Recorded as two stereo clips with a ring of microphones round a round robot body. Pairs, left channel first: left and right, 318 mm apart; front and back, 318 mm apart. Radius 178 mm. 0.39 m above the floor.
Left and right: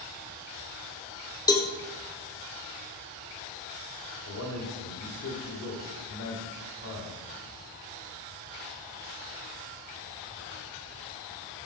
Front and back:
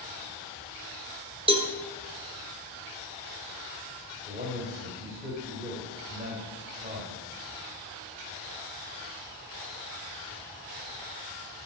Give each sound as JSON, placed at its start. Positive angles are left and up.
{"t": 1.5, "sound": "a cowbell", "azimuth_deg": 145, "distance_m": 1.5}
{"t": 4.3, "sound": "a man speaking", "azimuth_deg": 115, "distance_m": 2.5}